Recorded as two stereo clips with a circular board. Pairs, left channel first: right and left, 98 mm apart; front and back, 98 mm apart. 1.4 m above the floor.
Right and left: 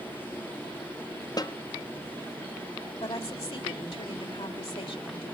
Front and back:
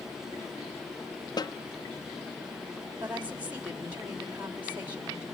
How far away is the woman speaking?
About 4 m.